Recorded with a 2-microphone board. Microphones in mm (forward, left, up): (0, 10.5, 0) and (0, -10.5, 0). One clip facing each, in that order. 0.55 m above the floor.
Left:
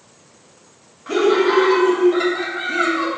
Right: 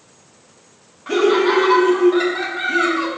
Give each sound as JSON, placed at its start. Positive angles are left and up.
{"t": 1.1, "sound": "laughter", "side_deg": -10, "distance_m": 0.9}